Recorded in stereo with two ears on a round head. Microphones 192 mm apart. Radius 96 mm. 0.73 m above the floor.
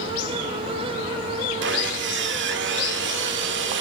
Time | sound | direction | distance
1.6 | sawing | 60° right (ahead or behind) | 1.9 m